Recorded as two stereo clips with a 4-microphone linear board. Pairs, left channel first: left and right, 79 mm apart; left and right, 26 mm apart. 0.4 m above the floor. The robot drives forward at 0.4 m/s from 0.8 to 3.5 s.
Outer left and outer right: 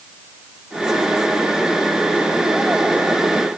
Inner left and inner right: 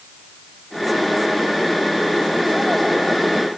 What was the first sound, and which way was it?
Only background noise.